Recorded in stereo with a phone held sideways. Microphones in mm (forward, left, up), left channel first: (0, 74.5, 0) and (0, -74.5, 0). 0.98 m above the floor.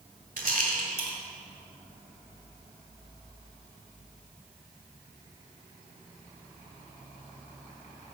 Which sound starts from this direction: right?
A rattle, at 0.4 s.